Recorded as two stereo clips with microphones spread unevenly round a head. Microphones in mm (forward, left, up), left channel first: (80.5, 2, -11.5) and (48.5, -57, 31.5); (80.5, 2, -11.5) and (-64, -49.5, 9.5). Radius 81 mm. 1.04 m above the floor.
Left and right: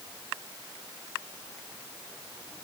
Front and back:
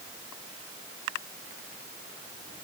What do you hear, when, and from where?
Only background noise.